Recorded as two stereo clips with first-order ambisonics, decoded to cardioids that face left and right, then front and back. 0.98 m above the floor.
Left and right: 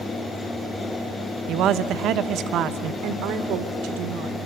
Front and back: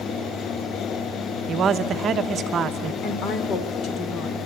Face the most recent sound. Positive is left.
turn(degrees=-50)